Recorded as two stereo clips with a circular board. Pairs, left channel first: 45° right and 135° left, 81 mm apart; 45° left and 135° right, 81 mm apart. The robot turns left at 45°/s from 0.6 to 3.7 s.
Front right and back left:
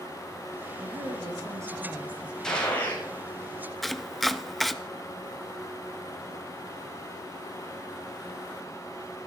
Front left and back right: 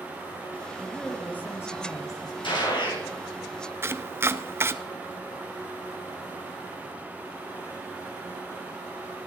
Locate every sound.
0.8 s a woman speaking: 130° left, 2.5 m; by 2.3 s 60° left, 2.5 m
2.4 s a gunshot: 35° left, 5 m; by 3.1 s 10° left, 5 m
3.8 s chopping: 135° right, 0.6 m